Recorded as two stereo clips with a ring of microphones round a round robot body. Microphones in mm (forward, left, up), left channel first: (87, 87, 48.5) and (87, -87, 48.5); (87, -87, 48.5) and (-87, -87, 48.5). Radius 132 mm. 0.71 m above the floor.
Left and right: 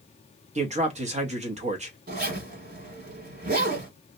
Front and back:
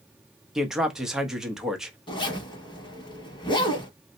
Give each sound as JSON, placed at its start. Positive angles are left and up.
{"t": 0.6, "sound": "a man speaking", "azimuth_deg": -95, "distance_m": 0.9}
{"t": 2.1, "sound": "a zipper", "azimuth_deg": -60, "distance_m": 1.1}